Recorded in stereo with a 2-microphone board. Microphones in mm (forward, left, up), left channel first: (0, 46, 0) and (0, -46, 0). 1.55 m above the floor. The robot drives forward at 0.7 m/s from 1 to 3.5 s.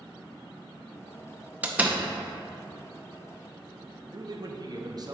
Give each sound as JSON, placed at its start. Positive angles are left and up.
{"t": 1.6, "sound": "a door slam", "side_deg": -15, "distance_m": 0.6}
{"t": 4.1, "sound": "a man speaking", "side_deg": -45, "distance_m": 0.7}